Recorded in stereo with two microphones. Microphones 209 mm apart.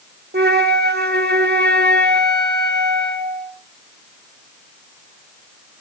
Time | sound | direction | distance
0.3 | a flute | 55° right (ahead or behind) | 0.8 m